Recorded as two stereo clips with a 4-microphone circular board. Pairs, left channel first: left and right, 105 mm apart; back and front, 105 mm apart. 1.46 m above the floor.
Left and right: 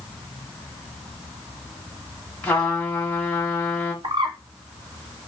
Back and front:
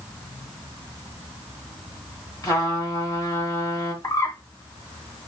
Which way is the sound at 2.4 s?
160° left.